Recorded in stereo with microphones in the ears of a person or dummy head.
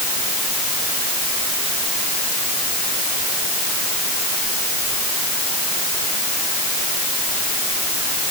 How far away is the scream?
No scream in this recording.